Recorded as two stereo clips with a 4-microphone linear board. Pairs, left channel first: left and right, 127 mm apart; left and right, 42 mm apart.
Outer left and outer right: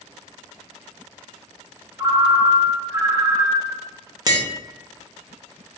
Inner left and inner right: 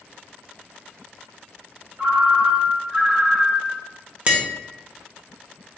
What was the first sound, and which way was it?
A ringtone, 25° right (ahead or behind).